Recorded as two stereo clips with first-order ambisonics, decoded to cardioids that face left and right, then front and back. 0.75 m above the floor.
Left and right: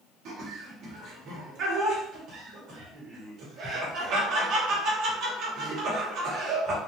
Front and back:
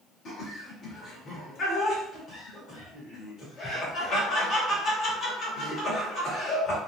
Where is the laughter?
55° right, 1.3 m.